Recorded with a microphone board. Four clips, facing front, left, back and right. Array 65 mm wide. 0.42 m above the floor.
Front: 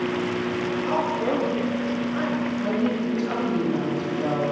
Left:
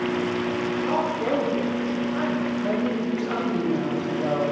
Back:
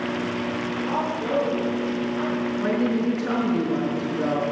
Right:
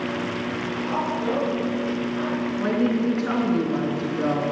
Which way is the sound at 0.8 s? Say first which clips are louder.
Even, front 2 dB; 30° left.